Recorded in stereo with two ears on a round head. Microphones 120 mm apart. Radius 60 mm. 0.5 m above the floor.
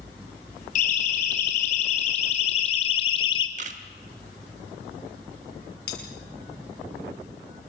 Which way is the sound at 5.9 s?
80° left.